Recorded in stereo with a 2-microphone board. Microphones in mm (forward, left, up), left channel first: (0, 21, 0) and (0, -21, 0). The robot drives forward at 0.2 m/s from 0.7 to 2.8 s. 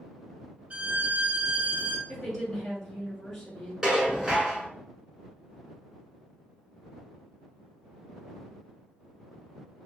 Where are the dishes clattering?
15° right (ahead or behind), 0.9 m.